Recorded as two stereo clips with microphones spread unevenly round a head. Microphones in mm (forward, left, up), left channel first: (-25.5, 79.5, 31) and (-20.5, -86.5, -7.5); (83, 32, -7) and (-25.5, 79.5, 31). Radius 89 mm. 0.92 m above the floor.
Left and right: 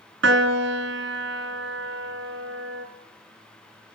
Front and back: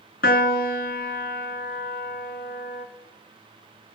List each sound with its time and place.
0.2 s a piano: 55° right, 1.8 m